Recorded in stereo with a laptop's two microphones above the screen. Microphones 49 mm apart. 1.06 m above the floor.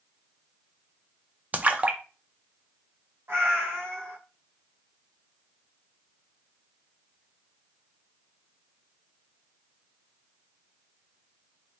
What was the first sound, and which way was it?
A splash, 30° right (ahead or behind).